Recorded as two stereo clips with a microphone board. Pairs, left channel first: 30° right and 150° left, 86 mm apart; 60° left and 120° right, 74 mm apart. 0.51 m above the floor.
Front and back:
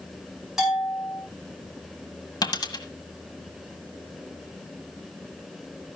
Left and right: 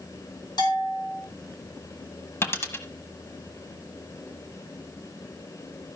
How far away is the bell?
About 5 m.